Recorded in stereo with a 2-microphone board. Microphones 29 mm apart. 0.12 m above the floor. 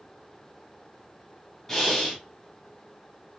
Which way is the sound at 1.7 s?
15° left (ahead or behind).